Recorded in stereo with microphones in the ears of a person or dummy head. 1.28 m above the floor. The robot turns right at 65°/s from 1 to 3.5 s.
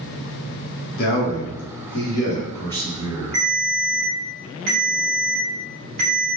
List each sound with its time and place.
1.0 s a man speaking: 60° left, 1.1 m; by 3.4 s 145° right, 1.1 m
3.3 s a ringtone: 40° right (ahead or behind), 1.5 m; by 6.3 s 50° right (ahead or behind), 1.5 m